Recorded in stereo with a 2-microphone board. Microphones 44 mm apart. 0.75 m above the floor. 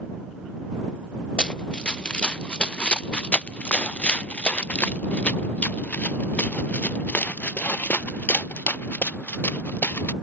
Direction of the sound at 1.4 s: 20° left (ahead or behind).